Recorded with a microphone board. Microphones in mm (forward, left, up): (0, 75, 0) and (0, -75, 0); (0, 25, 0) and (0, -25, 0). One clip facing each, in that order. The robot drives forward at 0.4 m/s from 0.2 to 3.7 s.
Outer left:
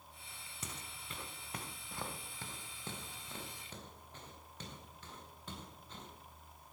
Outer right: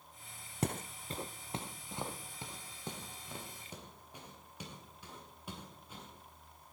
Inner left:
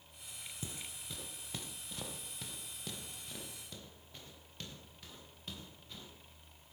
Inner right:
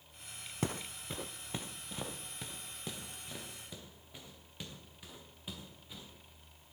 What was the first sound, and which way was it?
Footsteps, 65° right (ahead or behind).